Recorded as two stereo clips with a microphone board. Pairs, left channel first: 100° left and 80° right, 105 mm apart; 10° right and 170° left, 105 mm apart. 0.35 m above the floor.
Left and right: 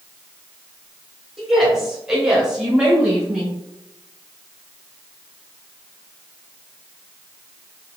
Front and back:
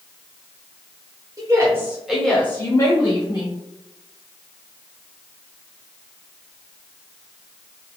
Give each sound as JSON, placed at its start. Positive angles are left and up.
{"t": 1.4, "sound": "a woman speaking", "azimuth_deg": -165, "distance_m": 1.2}